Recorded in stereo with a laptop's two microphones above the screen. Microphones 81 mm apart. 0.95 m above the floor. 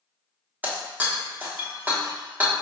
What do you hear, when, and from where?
0.6 s breaking glass: 20° right (ahead or behind), 1.1 m